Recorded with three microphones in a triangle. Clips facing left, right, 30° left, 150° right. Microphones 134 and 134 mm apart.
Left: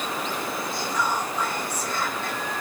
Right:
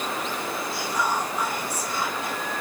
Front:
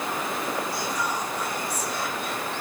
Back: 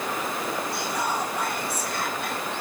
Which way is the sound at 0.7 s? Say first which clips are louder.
Even, back 1 dB; 170° right.